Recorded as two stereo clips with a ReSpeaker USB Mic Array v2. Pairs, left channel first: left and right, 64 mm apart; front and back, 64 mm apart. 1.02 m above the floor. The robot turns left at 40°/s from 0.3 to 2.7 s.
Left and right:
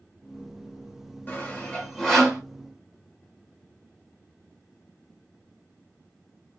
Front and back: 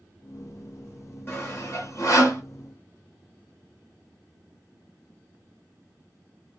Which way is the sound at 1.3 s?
40° left.